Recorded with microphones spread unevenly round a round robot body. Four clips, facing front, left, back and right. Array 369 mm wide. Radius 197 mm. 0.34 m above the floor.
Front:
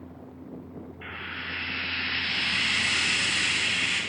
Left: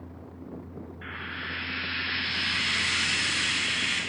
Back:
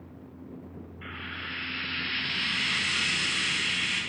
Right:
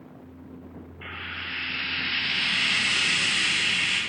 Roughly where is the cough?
No cough in this recording.